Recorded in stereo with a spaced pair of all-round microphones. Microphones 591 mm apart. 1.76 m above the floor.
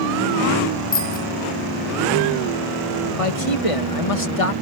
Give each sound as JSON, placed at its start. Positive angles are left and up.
{"t": 0.9, "sound": "a bicycle bell", "side_deg": 15}
{"t": 3.2, "sound": "a man speaking", "side_deg": 65}